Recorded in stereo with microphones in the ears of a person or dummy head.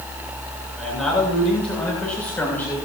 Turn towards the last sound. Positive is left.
turn(degrees=10)  # may be behind; listen again after turning